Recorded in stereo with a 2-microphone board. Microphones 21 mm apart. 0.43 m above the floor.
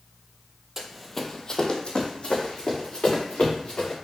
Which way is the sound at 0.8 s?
20° right (ahead or behind).